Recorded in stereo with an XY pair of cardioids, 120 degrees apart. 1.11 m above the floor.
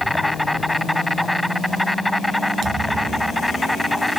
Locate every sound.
0.0 s an insect: straight ahead
2.6 s a thud: 50° right